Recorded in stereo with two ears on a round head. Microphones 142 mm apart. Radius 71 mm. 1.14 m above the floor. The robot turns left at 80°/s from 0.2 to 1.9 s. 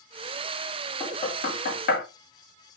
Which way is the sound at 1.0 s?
30° left (ahead or behind).